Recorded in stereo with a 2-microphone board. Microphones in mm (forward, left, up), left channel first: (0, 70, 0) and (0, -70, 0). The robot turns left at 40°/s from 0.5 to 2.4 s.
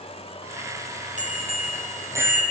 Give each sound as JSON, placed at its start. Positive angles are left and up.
{"t": 1.2, "sound": "a bicycle bell", "azimuth_deg": -120, "distance_m": 5.5}